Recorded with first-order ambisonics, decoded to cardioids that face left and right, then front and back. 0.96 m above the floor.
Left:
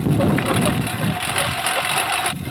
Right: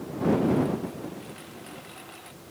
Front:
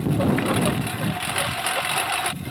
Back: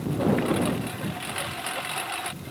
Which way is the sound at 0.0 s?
70° left.